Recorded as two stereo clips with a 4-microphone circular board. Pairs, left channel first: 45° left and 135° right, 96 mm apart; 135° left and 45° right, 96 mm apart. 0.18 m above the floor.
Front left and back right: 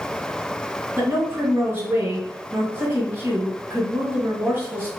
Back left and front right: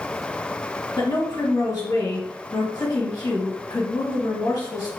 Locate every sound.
1.0 s a woman speaking: 170° left, 1.9 m